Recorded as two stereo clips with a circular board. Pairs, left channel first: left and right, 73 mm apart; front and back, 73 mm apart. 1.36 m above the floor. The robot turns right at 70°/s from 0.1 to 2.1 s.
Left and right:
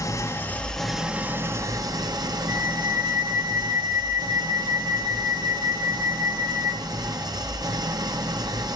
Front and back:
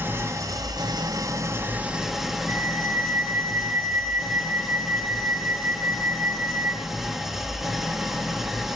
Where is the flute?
145° right, 1.1 m.